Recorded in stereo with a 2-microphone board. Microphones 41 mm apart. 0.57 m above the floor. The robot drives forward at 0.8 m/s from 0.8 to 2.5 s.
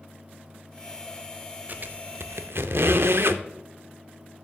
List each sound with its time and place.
1.7 s a squeak: 45° right (ahead or behind), 0.7 m; by 3.4 s 65° right (ahead or behind), 0.5 m